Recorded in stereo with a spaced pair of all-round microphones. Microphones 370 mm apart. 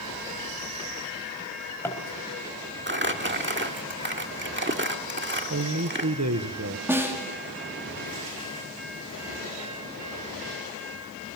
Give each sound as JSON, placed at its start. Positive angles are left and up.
{"t": 1.4, "sound": "a drawer", "side_deg": 5, "distance_m": 4.0}
{"t": 2.9, "sound": "crumpling", "side_deg": -30, "distance_m": 1.5}
{"t": 5.5, "sound": "a man speaking", "side_deg": -45, "distance_m": 1.3}
{"t": 6.9, "sound": "a snare drum", "side_deg": -5, "distance_m": 3.0}